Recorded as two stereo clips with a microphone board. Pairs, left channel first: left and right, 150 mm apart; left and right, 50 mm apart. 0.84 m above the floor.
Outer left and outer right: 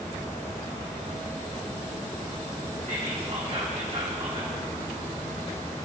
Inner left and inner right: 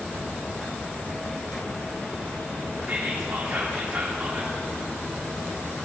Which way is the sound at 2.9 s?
45° right (ahead or behind).